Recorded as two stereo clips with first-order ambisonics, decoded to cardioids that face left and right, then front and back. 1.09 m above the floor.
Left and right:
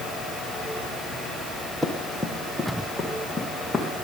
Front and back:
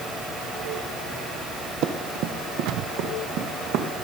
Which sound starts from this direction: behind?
Running footsteps, at 1.8 s.